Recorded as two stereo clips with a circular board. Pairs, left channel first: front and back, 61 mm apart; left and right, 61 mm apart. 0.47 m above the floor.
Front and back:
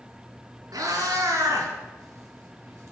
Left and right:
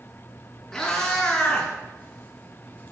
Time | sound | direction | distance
0.7 | a cat meowing | 165° left | 3 m